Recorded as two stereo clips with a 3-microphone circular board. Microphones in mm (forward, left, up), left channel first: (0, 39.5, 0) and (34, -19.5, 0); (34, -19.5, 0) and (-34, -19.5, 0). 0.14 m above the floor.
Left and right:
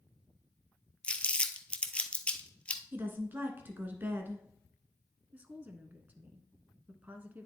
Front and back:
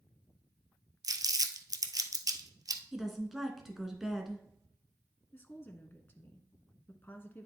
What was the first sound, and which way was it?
Crumpling, 170° right.